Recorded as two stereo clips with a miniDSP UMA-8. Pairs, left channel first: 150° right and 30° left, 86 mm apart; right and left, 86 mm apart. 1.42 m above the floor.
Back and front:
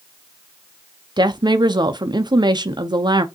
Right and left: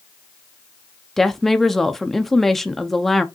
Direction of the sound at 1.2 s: 5° right.